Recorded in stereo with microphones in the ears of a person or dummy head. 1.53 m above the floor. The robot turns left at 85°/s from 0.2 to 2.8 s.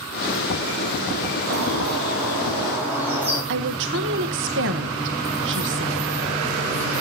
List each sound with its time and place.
1.5 s a bird: 60° right, 8 m; by 3.4 s 175° right, 8 m
3.5 s a woman speaking: 65° right (ahead or behind), 1.1 m